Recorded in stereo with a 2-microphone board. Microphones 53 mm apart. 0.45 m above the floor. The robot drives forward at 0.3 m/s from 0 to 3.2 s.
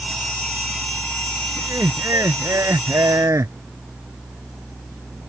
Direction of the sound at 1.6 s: 75° right (ahead or behind).